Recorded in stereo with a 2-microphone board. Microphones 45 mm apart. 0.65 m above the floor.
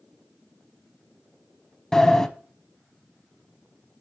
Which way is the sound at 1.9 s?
15° left (ahead or behind).